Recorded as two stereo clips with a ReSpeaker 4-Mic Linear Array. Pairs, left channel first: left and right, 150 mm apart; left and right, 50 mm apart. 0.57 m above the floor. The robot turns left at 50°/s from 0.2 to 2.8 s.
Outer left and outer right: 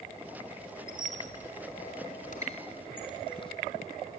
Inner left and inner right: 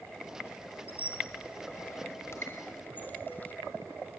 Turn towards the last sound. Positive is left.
turn(degrees=35)  # may be behind; listen again after turning